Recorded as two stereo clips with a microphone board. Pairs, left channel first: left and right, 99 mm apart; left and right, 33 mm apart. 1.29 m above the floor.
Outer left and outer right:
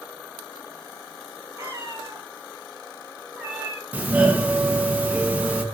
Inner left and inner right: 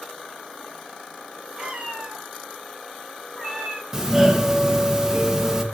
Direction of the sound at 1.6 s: 30° right (ahead or behind).